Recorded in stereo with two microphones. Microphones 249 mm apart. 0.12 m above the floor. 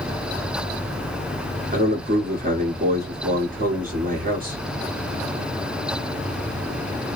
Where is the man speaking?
35° right (ahead or behind), 1.6 m.